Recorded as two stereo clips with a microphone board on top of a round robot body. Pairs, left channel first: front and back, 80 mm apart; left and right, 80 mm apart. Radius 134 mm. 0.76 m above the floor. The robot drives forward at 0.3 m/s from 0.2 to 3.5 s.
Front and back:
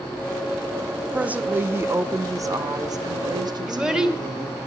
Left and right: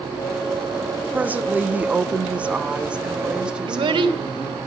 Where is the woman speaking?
125° right, 0.6 m; by 4.6 s 165° right, 1.0 m.